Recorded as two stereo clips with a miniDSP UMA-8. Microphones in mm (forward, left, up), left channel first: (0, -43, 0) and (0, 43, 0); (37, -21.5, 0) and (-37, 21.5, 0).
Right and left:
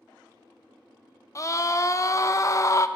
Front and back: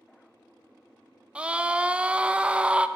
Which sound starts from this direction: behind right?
A scream, at 1.4 s.